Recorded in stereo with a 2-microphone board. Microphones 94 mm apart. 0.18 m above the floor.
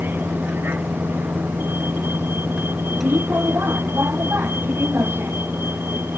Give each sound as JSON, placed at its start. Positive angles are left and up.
{"t": 0.0, "sound": "a vehicle", "side_deg": -20}